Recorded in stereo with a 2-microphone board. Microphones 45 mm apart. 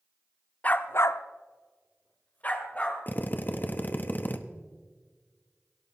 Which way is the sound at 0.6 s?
30° left (ahead or behind).